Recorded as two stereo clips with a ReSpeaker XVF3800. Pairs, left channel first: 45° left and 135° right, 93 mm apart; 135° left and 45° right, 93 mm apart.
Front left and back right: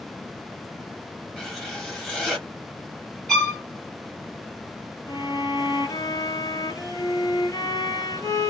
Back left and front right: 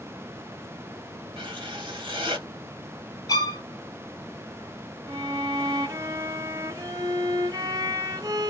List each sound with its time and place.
1.4 s writing: 35° right, 1.7 m
3.3 s a violin: 125° left, 1.4 m
5.1 s a violin: straight ahead, 1.0 m